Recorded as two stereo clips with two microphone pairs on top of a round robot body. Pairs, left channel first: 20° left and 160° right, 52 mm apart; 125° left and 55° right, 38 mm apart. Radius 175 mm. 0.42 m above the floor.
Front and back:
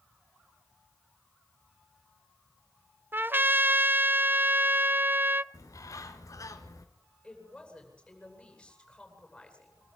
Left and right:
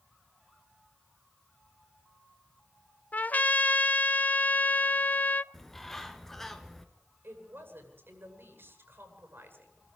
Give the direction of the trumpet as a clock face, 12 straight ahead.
6 o'clock.